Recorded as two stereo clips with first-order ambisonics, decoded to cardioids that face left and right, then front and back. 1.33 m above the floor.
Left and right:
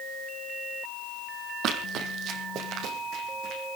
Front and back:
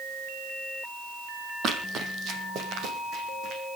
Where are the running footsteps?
130° right, 3 m; by 3.6 s 135° right, 5 m.